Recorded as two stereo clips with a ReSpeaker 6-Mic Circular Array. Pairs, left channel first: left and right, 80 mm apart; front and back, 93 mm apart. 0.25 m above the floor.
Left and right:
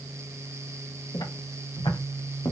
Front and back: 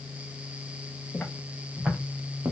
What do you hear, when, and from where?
1.1 s footsteps: 85° left, 2.5 m; by 2.5 s 120° left, 1.5 m